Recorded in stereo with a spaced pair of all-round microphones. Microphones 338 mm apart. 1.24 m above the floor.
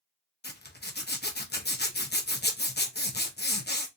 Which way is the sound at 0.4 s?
30° left (ahead or behind).